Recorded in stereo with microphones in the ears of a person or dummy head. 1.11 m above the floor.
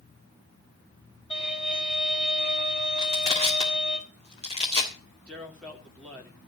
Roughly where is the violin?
Left.